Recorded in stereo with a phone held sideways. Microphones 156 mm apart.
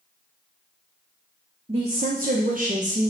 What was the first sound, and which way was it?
A woman speaking, 40° right (ahead or behind).